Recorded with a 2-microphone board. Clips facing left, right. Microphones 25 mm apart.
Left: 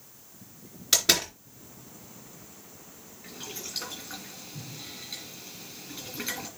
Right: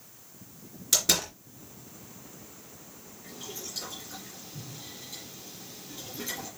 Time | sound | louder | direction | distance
0.9 | a door slam | left 3 dB | 30° left (ahead or behind) | 3.5 m
3.2 | boiling | left 1 dB | 45° left (ahead or behind) | 5 m